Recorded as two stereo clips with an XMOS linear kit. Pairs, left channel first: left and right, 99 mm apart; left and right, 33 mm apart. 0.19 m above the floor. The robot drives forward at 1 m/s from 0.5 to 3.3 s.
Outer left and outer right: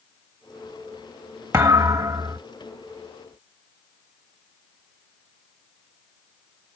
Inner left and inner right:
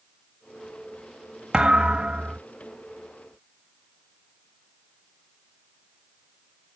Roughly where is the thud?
Right.